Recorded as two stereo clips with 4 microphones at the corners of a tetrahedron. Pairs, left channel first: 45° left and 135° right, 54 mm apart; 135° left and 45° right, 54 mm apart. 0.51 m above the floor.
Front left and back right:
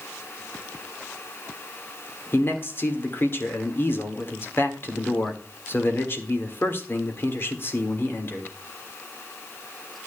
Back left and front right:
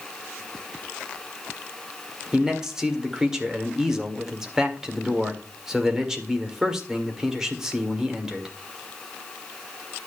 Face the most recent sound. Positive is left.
turn(degrees=35)